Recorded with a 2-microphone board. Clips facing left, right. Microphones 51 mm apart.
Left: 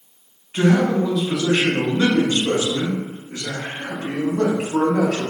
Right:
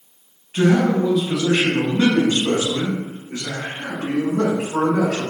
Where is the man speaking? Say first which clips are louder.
Right 1 dB; 5° left (ahead or behind), 1.3 m; by 5.2 s 65° right (ahead or behind), 3 m.